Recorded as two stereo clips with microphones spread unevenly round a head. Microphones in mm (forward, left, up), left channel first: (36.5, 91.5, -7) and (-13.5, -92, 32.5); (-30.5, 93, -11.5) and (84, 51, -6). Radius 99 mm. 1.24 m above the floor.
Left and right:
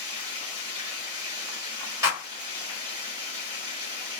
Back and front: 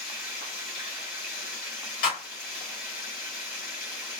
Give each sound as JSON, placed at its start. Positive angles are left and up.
{"t": 0.0, "sound": "running water", "azimuth_deg": -170, "distance_m": 2.5}
{"t": 2.0, "sound": "a clap", "azimuth_deg": 180, "distance_m": 1.9}